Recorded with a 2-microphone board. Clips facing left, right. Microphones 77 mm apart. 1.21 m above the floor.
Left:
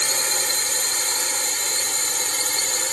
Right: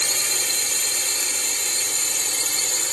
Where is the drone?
40° left (ahead or behind); by 2.9 s 45° left (ahead or behind).